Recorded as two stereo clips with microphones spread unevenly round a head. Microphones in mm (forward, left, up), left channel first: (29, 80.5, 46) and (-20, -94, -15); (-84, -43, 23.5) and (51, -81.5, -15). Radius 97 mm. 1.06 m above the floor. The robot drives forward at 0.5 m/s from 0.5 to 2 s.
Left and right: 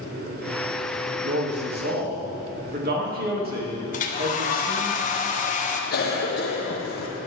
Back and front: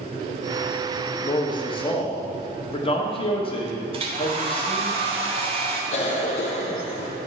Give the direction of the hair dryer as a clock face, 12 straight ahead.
11 o'clock.